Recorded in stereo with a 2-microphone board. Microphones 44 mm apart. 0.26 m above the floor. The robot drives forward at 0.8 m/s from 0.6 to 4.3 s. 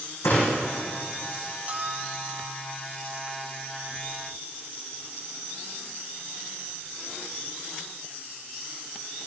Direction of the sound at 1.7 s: 35° right (ahead or behind).